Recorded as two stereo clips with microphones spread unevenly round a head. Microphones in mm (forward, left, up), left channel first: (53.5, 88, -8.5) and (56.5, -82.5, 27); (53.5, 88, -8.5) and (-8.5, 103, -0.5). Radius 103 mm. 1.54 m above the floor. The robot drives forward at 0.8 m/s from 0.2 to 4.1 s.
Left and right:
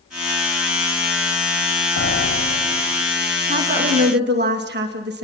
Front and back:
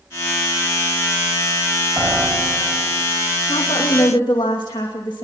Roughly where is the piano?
Behind left.